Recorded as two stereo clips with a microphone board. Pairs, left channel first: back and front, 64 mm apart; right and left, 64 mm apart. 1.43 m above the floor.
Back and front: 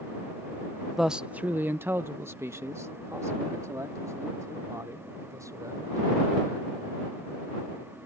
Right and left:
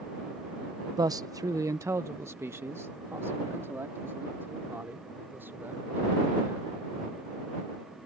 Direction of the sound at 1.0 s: 90° left.